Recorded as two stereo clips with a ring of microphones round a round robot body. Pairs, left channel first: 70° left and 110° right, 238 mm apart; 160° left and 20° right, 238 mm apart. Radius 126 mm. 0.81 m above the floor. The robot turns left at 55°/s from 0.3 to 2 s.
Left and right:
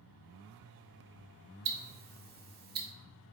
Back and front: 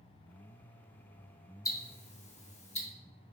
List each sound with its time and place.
1.6 s ticking: 130° right, 0.9 m; by 2.9 s 150° right, 0.9 m